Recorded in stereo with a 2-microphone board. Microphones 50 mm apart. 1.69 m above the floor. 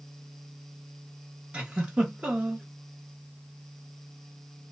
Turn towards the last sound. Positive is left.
turn(degrees=-25)  # may be behind; listen again after turning